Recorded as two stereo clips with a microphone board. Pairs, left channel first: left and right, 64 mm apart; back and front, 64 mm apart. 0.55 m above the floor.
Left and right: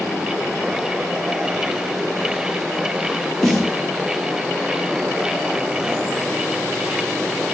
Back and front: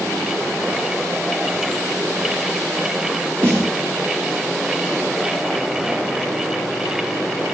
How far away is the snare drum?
About 0.8 m.